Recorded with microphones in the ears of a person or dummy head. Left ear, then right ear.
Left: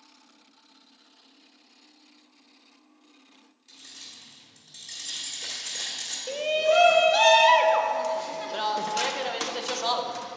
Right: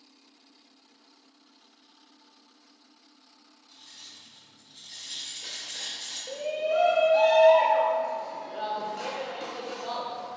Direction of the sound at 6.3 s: 50° left (ahead or behind).